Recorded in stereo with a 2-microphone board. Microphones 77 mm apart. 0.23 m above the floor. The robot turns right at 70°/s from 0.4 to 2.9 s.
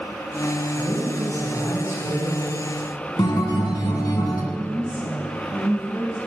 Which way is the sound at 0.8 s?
135° right.